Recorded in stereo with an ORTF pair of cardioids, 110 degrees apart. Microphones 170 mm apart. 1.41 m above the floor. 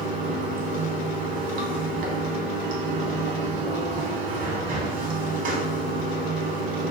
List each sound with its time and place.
0.0 s running water: 50° right, 0.8 m